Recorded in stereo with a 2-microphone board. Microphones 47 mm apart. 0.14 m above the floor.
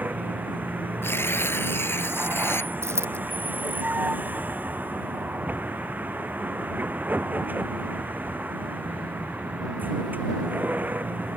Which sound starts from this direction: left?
Tearing paper, at 1.0 s.